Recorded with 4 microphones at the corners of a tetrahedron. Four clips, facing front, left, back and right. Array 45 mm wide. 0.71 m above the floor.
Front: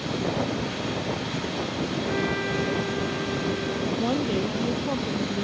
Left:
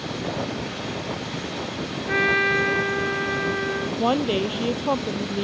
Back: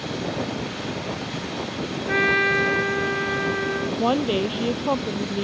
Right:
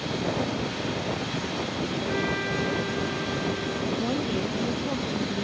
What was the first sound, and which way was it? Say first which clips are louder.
A trumpet: left 11 dB, back 11 dB; 140° left.